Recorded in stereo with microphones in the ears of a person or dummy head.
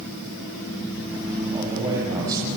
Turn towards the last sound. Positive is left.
turn(degrees=-20)  # may be behind; listen again after turning